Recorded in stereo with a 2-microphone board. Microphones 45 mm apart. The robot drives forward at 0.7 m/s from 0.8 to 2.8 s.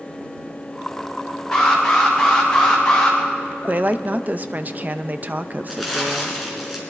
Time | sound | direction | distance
1.5 | an alarm | 15° left (ahead or behind) | 4.5 m
3.6 | a woman speaking | 40° right (ahead or behind) | 0.6 m
5.7 | crumpling | 5° left (ahead or behind) | 3.5 m